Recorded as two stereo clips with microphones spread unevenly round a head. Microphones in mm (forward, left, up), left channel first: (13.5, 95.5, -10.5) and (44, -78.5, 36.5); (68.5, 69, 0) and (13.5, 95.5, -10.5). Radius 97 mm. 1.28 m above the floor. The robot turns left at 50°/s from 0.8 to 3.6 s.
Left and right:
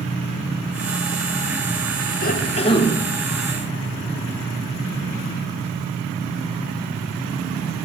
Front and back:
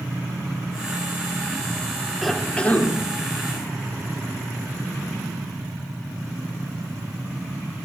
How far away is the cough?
About 4 m.